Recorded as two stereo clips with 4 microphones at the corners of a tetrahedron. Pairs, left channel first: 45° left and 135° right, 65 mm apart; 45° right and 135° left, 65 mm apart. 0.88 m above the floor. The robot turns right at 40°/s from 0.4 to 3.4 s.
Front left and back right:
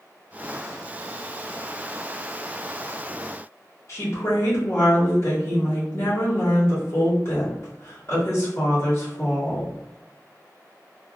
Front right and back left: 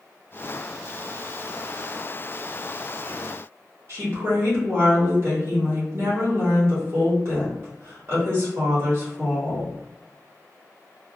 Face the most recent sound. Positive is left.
turn(degrees=90)